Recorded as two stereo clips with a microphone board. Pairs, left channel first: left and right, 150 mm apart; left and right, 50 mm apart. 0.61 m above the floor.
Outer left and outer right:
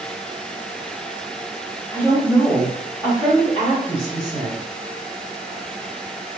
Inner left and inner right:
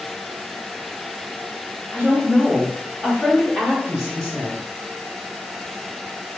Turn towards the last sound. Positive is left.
turn(degrees=25)  # may be behind; listen again after turning